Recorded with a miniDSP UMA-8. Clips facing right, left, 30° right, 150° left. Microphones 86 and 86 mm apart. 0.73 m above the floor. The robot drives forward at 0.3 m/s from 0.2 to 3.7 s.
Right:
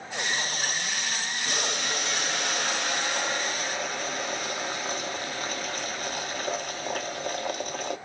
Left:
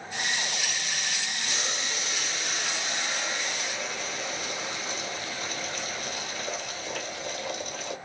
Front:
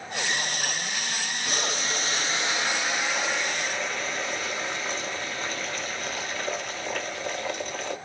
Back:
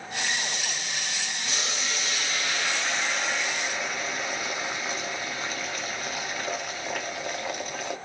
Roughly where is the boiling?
Ahead right.